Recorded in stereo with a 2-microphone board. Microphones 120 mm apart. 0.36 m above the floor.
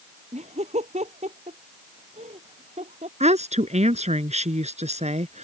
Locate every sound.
0.3 s laughter: 80° right
3.2 s a woman speaking: 80° right